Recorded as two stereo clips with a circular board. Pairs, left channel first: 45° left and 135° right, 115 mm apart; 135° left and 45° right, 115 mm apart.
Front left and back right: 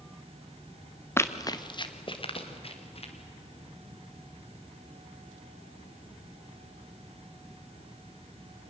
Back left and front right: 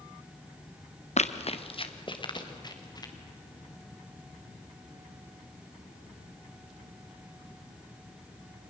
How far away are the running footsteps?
About 1.2 m.